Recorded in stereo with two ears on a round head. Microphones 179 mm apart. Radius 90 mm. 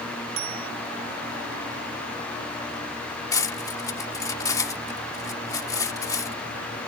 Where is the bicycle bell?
70° right (ahead or behind).